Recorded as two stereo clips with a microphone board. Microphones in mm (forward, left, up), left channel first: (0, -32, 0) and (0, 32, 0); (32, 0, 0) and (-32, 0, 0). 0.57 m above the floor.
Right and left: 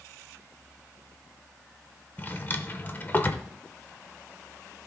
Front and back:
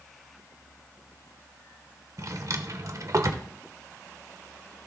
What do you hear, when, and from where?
2.2 s a drawer: 150° right, 0.8 m